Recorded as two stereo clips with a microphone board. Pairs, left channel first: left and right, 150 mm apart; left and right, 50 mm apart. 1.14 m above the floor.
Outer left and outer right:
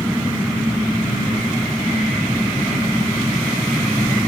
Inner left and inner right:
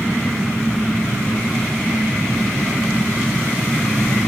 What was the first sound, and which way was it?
An engine running, 10° right (ahead or behind).